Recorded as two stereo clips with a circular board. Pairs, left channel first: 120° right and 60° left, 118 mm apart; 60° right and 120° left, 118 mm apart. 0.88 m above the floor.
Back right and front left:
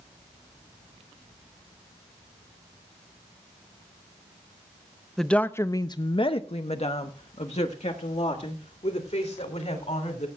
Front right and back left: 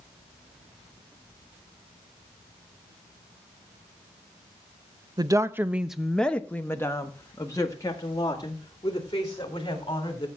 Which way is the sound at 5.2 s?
155° left.